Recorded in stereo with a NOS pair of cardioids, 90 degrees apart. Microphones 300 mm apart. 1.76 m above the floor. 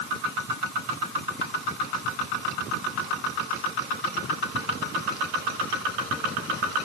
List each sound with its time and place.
Only background noise.